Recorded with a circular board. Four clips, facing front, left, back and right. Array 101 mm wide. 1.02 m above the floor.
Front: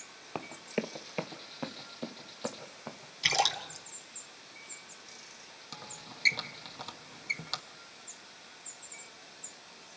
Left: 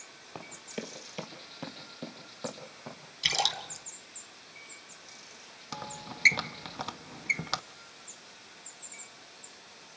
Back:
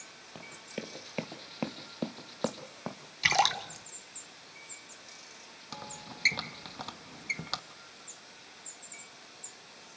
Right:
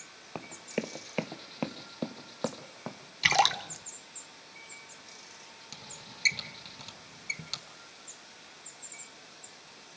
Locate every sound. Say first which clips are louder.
0.3 s running footsteps: right 5 dB, front 7 dB; 25° right, 1.5 m; by 3.0 s 150° right, 3 m
3.2 s a splash: right 7 dB, back 3 dB; 120° right, 1.2 m
5.7 s a squeak: left 12 dB, back 4 dB; 105° left, 0.6 m